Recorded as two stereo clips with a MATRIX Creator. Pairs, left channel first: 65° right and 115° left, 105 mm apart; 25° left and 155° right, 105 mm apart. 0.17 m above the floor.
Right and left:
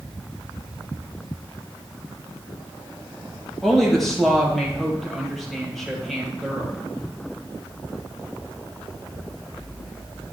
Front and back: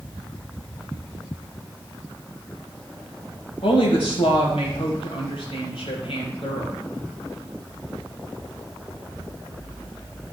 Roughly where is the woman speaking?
Ahead.